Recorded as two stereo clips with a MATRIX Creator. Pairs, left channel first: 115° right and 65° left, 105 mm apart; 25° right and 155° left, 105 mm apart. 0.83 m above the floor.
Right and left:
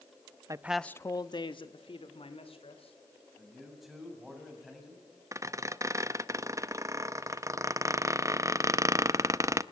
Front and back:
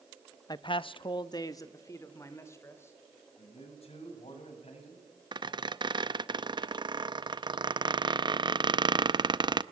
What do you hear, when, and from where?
0.5 s a man speaking: 20° left, 0.7 m; by 2.9 s 90° right, 3.5 m
3.4 s a man speaking: 20° right, 7 m
5.3 s a squeak: 125° left, 0.6 m